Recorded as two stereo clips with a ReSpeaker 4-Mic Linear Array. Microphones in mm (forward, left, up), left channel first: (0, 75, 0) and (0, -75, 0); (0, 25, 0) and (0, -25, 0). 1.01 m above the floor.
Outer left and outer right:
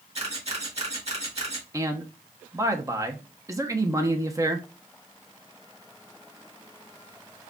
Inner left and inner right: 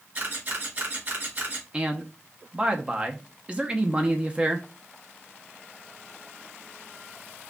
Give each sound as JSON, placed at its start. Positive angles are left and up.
{"t": 0.1, "sound": "a camera shutter", "side_deg": -45, "distance_m": 1.8}
{"t": 1.7, "sound": "a man speaking", "side_deg": -20, "distance_m": 0.7}